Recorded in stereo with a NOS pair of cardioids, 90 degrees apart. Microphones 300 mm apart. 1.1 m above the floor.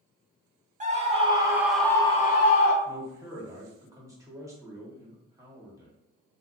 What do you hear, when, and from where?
0.8 s a scream: 25° right, 1.0 m; by 2.8 s 60° left, 0.5 m
2.9 s a man speaking: 10° right, 1.2 m